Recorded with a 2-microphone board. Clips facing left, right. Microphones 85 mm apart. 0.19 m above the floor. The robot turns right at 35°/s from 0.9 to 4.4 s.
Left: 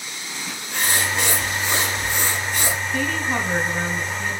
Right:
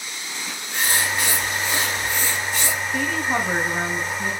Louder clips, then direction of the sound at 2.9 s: Right 2 dB; 10° right (ahead or behind).